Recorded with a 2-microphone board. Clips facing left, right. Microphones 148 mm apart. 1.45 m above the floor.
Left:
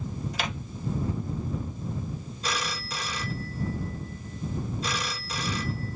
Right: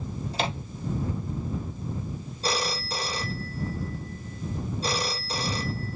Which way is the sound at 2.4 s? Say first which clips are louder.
Right 5 dB; 35° right (ahead or behind).